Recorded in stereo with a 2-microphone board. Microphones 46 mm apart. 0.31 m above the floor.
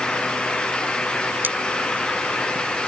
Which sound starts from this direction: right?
Cutlery clinking, at 1.4 s.